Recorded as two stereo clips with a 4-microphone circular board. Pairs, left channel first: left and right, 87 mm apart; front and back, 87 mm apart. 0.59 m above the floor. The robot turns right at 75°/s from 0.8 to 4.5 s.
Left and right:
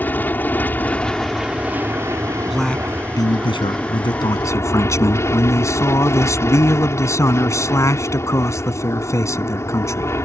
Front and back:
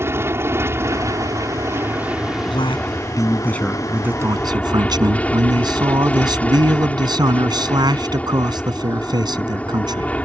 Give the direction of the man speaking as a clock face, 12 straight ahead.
12 o'clock.